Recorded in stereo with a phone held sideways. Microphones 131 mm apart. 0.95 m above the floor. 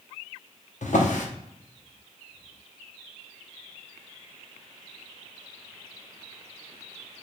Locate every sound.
0.8 s a drawer: 70° left (ahead or behind), 0.7 m